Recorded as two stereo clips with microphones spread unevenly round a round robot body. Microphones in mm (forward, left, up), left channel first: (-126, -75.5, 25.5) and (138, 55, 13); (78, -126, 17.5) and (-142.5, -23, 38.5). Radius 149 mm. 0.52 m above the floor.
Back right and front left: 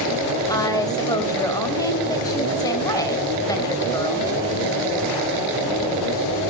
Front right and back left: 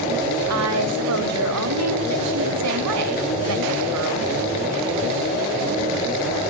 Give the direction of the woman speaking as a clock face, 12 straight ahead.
8 o'clock.